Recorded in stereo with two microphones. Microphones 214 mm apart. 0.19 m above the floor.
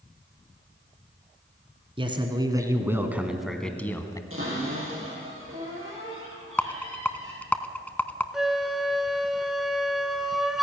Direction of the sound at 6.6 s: 10° left (ahead or behind).